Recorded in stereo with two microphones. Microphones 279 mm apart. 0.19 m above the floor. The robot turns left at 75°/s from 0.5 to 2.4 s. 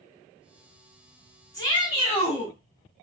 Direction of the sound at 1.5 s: 15° left (ahead or behind).